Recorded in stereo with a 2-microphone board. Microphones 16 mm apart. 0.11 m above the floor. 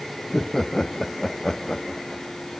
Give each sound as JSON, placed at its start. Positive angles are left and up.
{"t": 0.2, "sound": "laughter", "side_deg": 30}